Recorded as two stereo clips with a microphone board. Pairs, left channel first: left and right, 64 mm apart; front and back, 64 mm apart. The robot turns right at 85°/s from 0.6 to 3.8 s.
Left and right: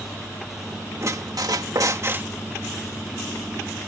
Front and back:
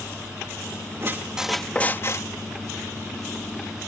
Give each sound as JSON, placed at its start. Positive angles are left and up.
{"t": 1.0, "sound": "a squeak", "azimuth_deg": -135}